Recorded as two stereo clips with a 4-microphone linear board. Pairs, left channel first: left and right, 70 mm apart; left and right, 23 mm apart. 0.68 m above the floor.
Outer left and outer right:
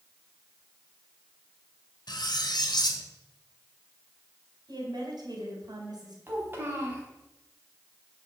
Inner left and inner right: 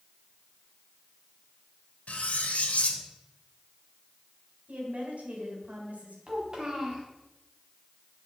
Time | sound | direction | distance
2.1 | cutlery clinking | 80° left | 1.4 m
4.7 | a woman speaking | 70° right (ahead or behind) | 4 m
6.3 | a child speaking | 30° right (ahead or behind) | 3.5 m